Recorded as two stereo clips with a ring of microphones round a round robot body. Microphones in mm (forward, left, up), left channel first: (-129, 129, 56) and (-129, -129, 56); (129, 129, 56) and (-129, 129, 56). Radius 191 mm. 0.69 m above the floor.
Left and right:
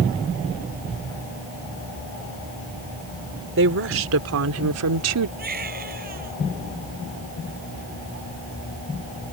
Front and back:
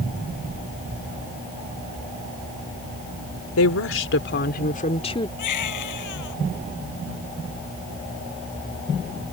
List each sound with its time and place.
3.6 s a woman speaking: 40° right; by 5.3 s 75° right
5.4 s a baby crying: 25° right